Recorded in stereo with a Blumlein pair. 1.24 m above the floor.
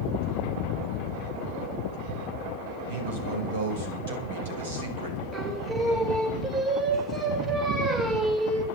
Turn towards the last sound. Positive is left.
turn(degrees=-20)